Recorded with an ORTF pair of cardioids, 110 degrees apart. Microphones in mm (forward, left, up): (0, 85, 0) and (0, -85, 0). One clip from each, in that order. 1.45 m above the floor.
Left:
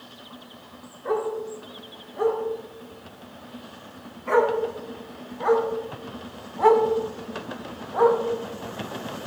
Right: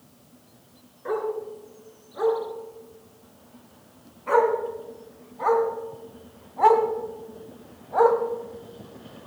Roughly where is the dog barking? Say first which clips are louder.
Left 2 dB; ahead.